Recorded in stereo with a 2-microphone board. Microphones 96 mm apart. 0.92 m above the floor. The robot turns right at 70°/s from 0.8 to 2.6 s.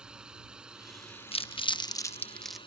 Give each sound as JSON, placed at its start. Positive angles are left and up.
{"t": 0.0, "sound": "a drone", "azimuth_deg": -10}
{"t": 1.3, "sound": "crumpling", "side_deg": 85}